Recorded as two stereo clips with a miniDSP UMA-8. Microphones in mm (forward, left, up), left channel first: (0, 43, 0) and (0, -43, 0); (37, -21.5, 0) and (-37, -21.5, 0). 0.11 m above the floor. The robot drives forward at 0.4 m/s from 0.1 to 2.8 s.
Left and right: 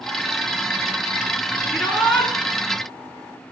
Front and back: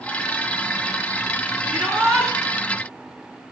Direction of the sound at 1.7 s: 160° left.